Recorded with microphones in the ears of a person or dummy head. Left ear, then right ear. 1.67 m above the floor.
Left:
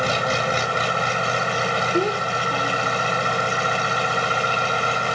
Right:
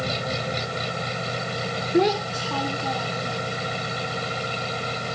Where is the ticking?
I don't hear ticking.